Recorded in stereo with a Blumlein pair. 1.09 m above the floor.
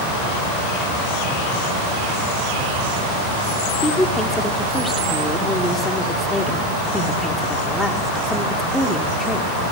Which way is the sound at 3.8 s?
5° left.